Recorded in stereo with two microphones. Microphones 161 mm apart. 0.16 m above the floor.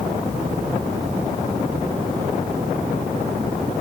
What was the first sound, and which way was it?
Only background noise.